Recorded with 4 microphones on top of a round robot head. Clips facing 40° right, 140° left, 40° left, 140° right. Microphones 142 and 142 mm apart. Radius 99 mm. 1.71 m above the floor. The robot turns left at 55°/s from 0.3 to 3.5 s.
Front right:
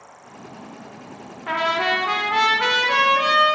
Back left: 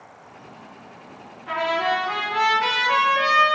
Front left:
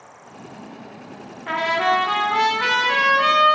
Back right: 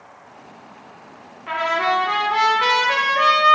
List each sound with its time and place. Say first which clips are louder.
1.5 s a trumpet: even, front left 1 dB; 10° right, 0.6 m; by 3.5 s 120° right, 0.6 m